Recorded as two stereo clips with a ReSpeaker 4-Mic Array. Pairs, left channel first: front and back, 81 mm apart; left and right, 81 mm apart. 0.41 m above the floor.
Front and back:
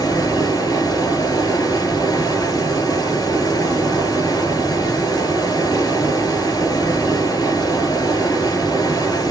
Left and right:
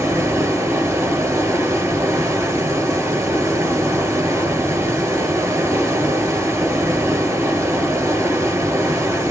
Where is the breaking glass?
I don't hear breaking glass.